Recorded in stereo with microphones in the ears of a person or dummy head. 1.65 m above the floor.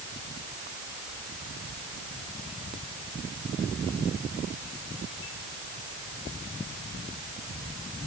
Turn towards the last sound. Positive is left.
No sound to turn to.